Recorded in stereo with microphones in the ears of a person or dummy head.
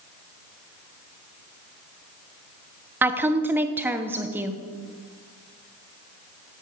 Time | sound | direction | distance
3.0 | a woman speaking | 10° right (ahead or behind) | 0.8 m